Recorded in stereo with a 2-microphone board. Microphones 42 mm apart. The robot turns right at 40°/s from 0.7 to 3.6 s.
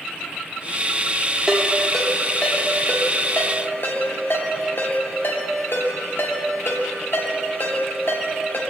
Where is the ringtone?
10° right (ahead or behind), 1.7 m; by 8.6 s 65° left (ahead or behind), 1.7 m.